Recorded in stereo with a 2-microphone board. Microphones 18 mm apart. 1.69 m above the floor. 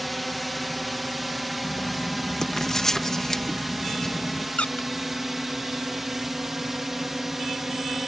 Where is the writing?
20° left (ahead or behind).